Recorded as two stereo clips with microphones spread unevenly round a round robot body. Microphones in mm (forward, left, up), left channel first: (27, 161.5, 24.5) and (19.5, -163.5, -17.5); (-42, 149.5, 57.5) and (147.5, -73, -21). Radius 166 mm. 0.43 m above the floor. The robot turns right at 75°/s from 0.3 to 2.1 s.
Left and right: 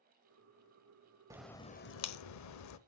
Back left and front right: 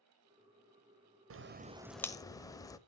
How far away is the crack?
About 0.8 m.